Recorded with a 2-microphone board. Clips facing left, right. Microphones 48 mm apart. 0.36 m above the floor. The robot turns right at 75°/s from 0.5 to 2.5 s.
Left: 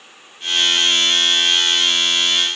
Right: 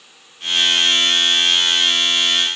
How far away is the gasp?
No gasp in this recording.